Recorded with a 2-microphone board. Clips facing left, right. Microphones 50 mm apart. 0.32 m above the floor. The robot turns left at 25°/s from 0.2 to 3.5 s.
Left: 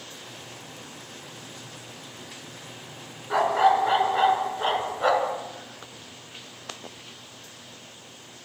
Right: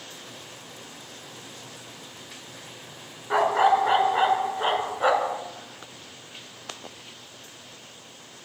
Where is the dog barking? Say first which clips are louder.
Even; 15° right (ahead or behind), 1.1 m; by 5.4 s 10° right (ahead or behind), 1.1 m.